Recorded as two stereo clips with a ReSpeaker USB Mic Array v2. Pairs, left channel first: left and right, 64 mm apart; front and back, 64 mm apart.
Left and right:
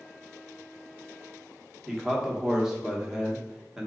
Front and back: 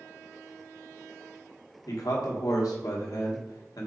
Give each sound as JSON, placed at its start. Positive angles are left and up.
{"t": 1.9, "sound": "a man speaking", "azimuth_deg": -10, "distance_m": 1.2}